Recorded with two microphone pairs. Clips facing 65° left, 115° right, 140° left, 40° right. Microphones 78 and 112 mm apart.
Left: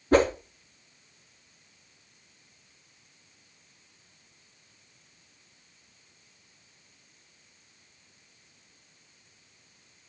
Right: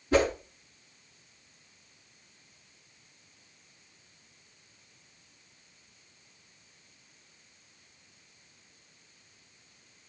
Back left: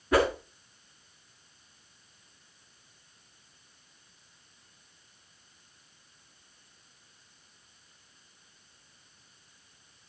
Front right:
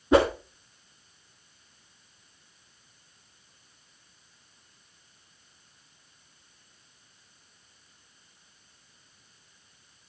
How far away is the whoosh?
About 2 m.